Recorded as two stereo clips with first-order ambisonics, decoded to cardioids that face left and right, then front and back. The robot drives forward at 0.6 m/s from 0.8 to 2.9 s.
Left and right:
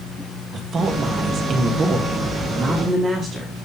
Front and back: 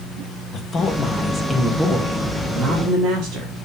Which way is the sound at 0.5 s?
55° right.